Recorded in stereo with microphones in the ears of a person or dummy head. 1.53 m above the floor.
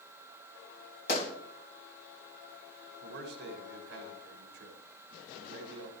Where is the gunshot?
55° left (ahead or behind), 2 m.